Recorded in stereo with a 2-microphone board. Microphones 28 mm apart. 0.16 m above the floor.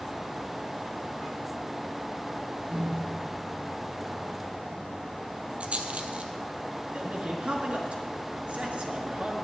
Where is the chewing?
I don't hear chewing.